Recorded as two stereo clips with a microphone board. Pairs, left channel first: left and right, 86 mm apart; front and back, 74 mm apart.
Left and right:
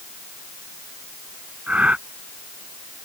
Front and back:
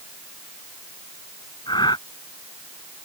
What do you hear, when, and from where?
1.7 s breathing: 15° right